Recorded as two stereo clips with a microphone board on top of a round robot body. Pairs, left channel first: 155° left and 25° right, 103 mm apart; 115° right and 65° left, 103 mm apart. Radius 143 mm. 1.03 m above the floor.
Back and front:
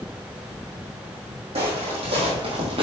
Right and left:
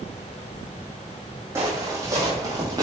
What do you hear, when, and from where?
1.6 s footsteps: 5° left, 2.5 m; by 2.8 s 10° left, 2.0 m